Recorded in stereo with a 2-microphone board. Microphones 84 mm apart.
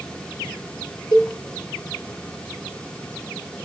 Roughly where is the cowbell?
Left.